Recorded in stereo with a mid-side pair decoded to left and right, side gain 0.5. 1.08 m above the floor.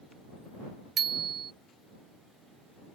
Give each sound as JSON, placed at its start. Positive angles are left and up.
{"t": 1.0, "sound": "a bicycle bell", "azimuth_deg": -50}